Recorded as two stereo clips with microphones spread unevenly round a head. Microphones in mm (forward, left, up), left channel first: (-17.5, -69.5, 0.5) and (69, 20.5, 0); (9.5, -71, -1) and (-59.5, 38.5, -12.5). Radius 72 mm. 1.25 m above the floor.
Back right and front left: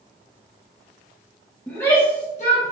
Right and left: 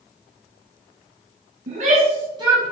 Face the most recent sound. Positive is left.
turn(degrees=-160)